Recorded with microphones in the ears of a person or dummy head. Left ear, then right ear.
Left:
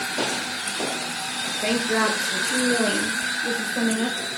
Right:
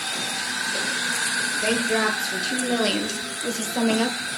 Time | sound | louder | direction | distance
1.6 | a woman speaking | left 2 dB | 5° left (ahead or behind) | 1.4 m